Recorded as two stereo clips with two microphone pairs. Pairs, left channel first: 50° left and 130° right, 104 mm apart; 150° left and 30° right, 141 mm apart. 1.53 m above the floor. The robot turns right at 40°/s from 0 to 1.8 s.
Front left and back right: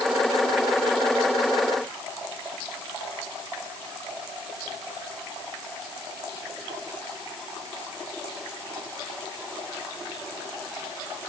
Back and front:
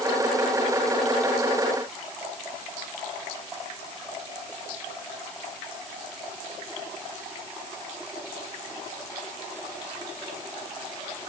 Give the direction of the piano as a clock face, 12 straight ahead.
I don't hear a piano.